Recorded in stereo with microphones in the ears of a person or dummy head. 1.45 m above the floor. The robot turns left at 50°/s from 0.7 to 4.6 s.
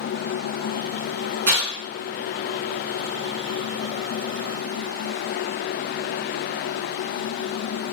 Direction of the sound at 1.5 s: 55° right (ahead or behind).